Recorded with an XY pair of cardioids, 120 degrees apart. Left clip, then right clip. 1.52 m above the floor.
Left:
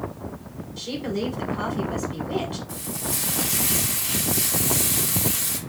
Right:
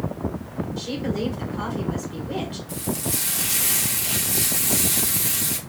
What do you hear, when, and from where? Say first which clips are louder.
0.8 s a woman speaking: left 1 dB; 5° left, 1.5 m
2.7 s frying: right 2 dB; 25° right, 1.2 m